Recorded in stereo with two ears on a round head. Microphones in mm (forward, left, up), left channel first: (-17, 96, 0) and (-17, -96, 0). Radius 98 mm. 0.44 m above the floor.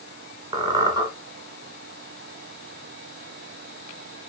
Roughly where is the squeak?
Centre.